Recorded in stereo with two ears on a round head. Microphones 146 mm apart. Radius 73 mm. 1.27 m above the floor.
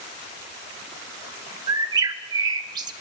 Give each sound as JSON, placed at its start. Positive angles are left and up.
{"t": 1.7, "sound": "a bird", "side_deg": -25, "distance_m": 0.9}